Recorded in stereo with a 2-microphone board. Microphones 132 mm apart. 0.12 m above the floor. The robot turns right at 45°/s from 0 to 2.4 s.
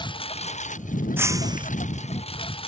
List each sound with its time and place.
0.0 s a lawn mower: 35° left (ahead or behind); by 2.7 s 45° left (ahead or behind)
1.2 s breaking glass: 15° right (ahead or behind); by 1.7 s 40° right (ahead or behind)